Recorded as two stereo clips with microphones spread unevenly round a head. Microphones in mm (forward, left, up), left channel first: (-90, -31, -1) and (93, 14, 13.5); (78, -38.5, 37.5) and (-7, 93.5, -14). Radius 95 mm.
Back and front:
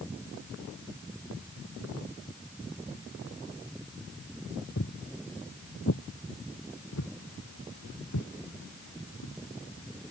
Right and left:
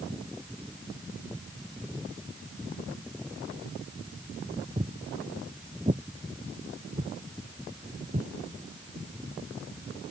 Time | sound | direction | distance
4.8 | footsteps | 165° right | ?